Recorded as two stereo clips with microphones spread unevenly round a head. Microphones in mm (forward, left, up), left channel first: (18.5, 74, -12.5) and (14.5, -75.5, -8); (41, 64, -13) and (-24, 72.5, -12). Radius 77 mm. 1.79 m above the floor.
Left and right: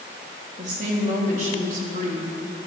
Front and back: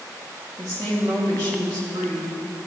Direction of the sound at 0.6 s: 135° right.